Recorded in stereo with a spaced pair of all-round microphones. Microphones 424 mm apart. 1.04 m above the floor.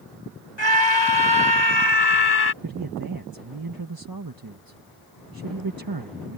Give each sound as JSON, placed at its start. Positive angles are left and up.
{"t": 0.6, "sound": "a scream", "side_deg": 75}
{"t": 2.6, "sound": "a man speaking", "side_deg": -50}